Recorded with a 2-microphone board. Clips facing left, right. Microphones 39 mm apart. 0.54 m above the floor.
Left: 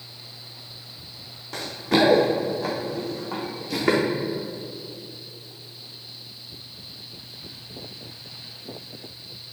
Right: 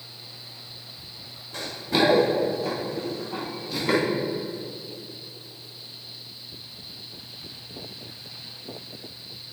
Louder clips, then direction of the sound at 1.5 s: Left 3 dB; 75° left (ahead or behind).